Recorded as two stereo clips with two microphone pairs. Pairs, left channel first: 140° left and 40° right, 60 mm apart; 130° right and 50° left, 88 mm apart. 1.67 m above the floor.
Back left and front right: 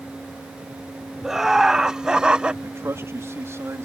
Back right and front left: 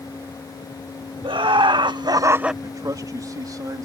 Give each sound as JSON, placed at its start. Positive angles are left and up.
{"t": 1.2, "sound": "laughter", "azimuth_deg": 45}
{"t": 2.6, "sound": "a man speaking", "azimuth_deg": 5}